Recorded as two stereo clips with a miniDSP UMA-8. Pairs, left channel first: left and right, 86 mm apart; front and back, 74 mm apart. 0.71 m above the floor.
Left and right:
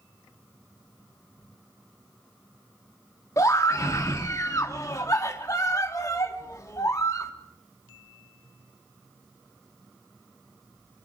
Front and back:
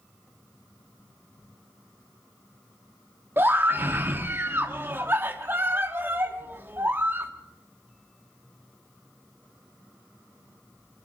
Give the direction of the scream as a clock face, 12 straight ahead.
8 o'clock.